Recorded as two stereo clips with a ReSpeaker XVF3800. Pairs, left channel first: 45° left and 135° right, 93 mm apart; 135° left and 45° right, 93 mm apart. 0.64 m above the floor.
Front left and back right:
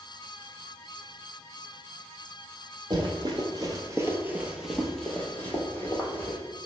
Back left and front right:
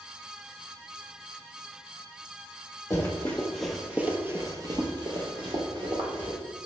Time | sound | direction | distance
2.9 | running footsteps | 160° right | 1.0 m